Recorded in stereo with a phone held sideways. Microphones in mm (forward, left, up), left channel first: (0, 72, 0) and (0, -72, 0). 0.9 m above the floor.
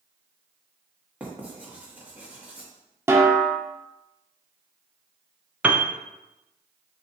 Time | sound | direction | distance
1.2 | writing | 10° right (ahead or behind) | 1.5 m
3.1 | a snare drum | 20° right (ahead or behind) | 0.8 m
5.6 | a piano | 10° right (ahead or behind) | 0.5 m